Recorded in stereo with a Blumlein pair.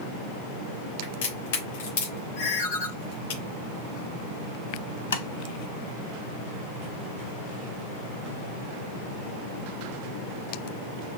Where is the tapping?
65° left, 0.7 m.